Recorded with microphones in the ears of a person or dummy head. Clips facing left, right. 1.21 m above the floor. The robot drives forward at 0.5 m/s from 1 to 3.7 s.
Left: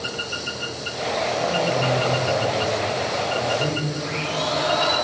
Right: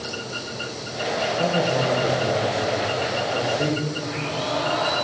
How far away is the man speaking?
About 0.9 m.